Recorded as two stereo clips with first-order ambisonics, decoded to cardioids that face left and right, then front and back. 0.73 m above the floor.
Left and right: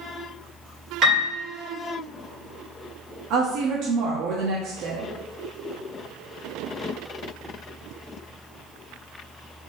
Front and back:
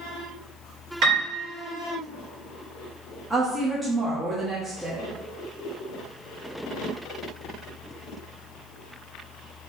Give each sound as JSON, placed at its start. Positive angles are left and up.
{"t": 1.0, "sound": "a piano", "azimuth_deg": -140, "distance_m": 1.9}
{"t": 3.3, "sound": "a woman speaking", "azimuth_deg": -95, "distance_m": 0.7}